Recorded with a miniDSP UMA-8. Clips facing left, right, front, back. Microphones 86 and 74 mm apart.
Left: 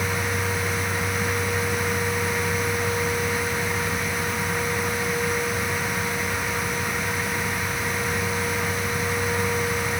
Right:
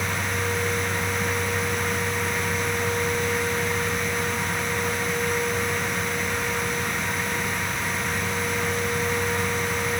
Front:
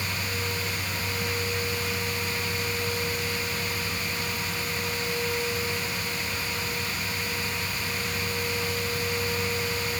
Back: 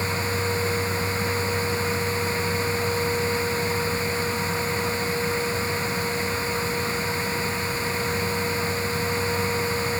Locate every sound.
Only background noise.